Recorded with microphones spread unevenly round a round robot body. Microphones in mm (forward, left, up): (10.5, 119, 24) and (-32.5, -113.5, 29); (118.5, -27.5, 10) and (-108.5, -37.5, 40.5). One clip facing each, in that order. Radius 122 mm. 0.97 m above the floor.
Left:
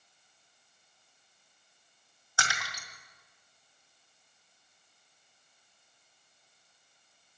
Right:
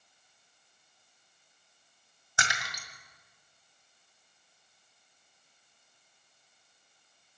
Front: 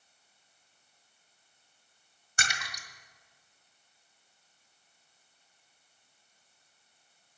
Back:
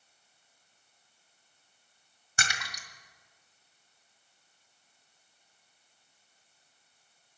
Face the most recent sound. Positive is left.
turn(degrees=-170)